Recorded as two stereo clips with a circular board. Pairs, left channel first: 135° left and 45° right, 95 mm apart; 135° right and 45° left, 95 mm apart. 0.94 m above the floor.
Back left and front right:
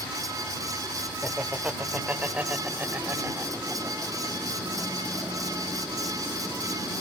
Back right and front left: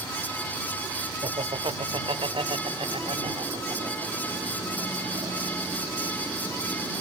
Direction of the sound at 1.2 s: 35° left.